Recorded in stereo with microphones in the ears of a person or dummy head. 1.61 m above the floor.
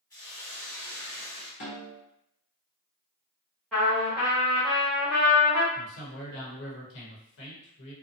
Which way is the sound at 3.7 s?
Centre (ahead or behind).